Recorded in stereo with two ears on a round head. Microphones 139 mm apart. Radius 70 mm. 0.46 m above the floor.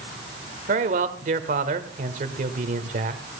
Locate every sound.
0.7 s a man speaking: 50° right (ahead or behind), 1.5 m